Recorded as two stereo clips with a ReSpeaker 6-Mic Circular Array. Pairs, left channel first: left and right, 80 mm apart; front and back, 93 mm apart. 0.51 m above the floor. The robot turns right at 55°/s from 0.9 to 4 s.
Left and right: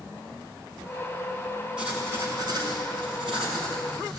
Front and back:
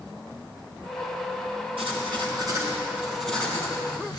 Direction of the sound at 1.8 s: 170° right.